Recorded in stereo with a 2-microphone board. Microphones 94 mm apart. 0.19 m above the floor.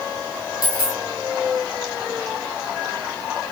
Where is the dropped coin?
45° left (ahead or behind), 1.5 m.